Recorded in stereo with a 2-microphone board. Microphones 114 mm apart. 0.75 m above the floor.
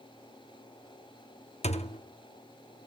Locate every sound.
1.6 s a thud: 75° left (ahead or behind), 0.6 m